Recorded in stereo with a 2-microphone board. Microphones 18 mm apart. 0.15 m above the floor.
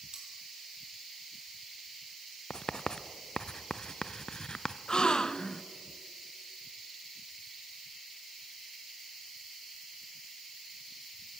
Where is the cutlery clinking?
45° right (ahead or behind), 3.5 m.